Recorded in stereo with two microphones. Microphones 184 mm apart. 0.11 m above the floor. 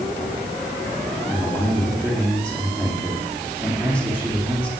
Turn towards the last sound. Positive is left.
turn(degrees=5)  # may be behind; listen again after turning